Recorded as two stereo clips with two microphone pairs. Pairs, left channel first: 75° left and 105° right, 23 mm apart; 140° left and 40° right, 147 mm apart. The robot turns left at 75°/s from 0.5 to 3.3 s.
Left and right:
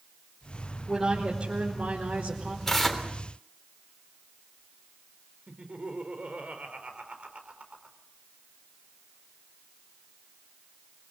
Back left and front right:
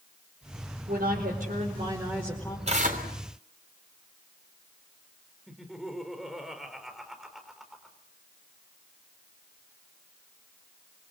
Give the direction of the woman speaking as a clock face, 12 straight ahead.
1 o'clock.